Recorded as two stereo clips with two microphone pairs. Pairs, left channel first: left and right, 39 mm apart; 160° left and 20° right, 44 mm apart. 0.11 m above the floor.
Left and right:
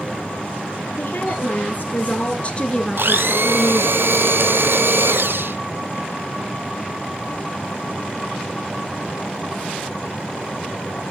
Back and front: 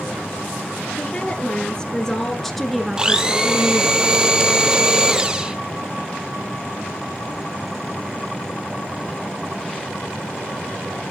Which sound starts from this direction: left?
A woman speaking, at 1.0 s.